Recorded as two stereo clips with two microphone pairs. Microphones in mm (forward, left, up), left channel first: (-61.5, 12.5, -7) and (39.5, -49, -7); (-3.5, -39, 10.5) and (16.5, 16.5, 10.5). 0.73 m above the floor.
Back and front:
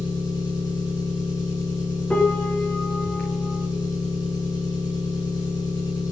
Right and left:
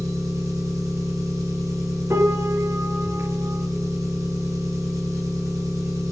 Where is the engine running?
95° left, 8 m.